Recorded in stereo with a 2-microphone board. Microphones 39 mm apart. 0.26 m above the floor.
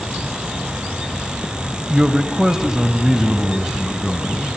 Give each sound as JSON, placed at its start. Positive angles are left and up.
{"t": 1.9, "sound": "a man speaking", "side_deg": -15, "distance_m": 1.1}